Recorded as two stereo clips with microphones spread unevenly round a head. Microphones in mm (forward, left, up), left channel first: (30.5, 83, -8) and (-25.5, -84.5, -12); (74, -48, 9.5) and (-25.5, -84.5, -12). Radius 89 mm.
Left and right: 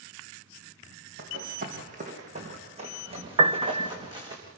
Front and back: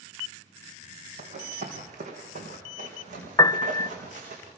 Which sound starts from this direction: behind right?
Running footsteps, at 1.2 s.